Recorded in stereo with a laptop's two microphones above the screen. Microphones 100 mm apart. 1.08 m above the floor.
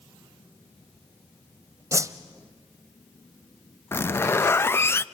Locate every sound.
1.9 s a whoosh: 30° right (ahead or behind), 0.9 m
3.9 s a zipper: 25° left (ahead or behind), 0.5 m